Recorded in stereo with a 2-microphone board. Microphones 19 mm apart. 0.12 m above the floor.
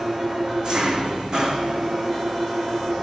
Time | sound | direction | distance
0.0 | an engine running | 40° right (ahead or behind) | 2.5 m